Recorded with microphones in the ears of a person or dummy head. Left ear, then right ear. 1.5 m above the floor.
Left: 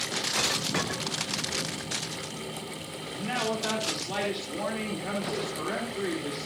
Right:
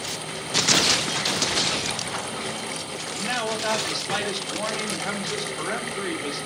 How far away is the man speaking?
About 4 m.